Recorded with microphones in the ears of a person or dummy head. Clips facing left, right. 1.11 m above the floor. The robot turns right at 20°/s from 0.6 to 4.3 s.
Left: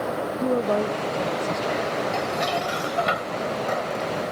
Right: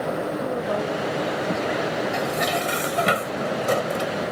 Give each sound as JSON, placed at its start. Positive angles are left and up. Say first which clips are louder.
{"t": 0.4, "sound": "a woman speaking", "louder": "left 3 dB", "side_deg": 30}
{"t": 2.1, "sound": "dishes clattering", "louder": "right 1 dB", "azimuth_deg": -155}